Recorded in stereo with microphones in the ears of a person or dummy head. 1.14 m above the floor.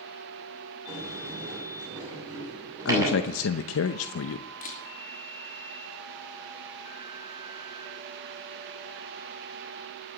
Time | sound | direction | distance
0.9 | a sliding door | 20° right (ahead or behind) | 7 m
2.9 | a man speaking | 85° left | 0.7 m
4.6 | a camera shutter | 45° left (ahead or behind) | 3 m